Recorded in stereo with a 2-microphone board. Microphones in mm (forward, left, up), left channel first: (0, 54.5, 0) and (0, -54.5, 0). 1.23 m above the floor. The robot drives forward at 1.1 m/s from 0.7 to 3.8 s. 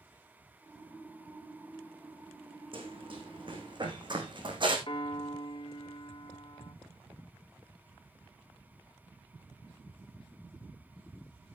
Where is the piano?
50° left (ahead or behind), 1.3 m.